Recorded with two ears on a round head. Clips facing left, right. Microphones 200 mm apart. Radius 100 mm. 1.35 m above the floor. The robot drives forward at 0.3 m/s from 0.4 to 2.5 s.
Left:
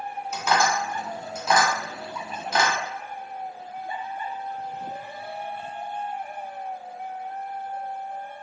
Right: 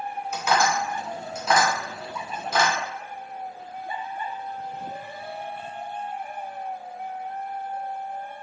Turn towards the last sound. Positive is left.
turn(degrees=5)  # may be behind; listen again after turning